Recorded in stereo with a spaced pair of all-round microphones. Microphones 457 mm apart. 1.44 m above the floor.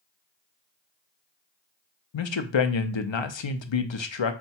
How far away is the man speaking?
About 0.6 m.